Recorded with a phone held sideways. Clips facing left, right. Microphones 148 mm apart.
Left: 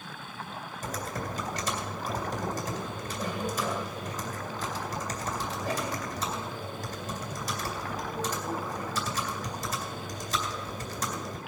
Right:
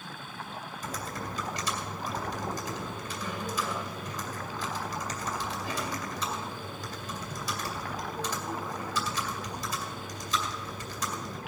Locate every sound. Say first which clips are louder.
0.8 s typing on a keyboard: left 3 dB; 45° left (ahead or behind), 2.5 m